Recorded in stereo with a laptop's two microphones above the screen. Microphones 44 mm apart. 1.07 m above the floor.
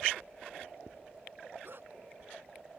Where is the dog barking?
55° right (ahead or behind).